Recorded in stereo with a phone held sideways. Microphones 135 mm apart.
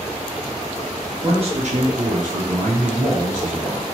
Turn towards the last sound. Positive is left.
turn(degrees=-50)  # may be behind; listen again after turning